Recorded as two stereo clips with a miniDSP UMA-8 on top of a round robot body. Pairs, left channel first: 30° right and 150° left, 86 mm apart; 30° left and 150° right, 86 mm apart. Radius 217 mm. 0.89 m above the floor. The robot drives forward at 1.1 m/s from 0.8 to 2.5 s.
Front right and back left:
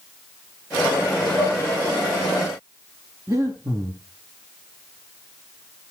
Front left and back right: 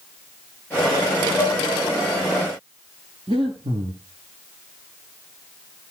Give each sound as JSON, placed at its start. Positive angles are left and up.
{"t": 1.4, "sound": "dishes clattering", "azimuth_deg": 120, "distance_m": 6.5}
{"t": 3.3, "sound": "breathing", "azimuth_deg": -160, "distance_m": 0.6}